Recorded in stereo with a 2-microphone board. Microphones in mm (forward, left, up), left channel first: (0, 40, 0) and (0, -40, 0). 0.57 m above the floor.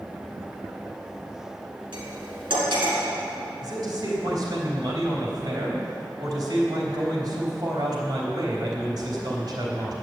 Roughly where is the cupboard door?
I don't hear a cupboard door.